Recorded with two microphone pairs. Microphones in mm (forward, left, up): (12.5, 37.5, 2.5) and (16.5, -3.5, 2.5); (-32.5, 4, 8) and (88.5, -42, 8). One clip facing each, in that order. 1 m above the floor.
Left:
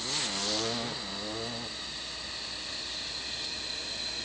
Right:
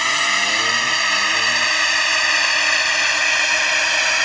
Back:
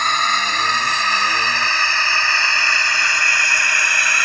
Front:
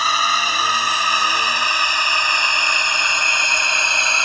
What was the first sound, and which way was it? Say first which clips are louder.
A drone: right 17 dB, even; 105° right.